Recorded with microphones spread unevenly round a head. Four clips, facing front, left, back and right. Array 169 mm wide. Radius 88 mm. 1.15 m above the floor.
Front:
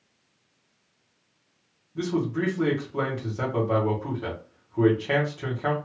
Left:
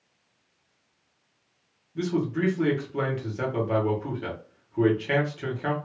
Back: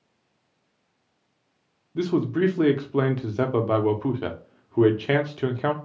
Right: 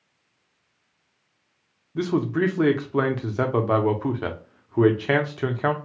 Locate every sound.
1.9 s a man speaking: 140° right, 0.7 m